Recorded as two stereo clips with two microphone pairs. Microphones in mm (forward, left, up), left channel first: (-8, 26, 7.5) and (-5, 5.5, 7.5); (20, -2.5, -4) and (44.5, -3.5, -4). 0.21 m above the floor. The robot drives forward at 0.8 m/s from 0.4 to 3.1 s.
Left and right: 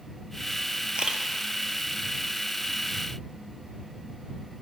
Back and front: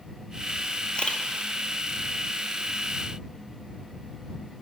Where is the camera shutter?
125° right, 0.8 m; by 1.2 s 140° right, 0.9 m.